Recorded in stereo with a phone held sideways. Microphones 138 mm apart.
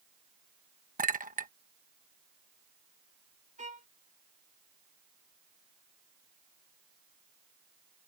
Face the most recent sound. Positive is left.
turn(degrees=-65)  # may be behind; listen again after turning